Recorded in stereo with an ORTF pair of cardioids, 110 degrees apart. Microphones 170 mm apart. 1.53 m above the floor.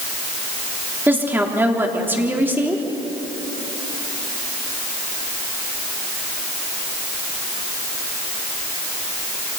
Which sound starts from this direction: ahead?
A woman speaking, at 1.1 s.